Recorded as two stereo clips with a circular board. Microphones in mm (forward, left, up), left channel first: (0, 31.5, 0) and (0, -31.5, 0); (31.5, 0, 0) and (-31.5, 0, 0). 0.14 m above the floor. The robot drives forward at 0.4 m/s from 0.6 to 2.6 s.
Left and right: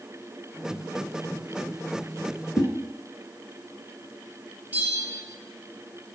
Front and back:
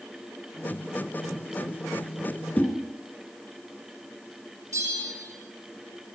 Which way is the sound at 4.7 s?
155° right.